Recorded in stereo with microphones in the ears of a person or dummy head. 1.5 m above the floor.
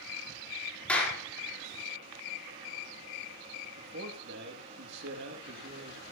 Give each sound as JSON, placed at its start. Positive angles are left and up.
{"t": 0.9, "sound": "a clap", "side_deg": 5, "distance_m": 4.0}
{"t": 3.8, "sound": "a man speaking", "side_deg": -55, "distance_m": 2.5}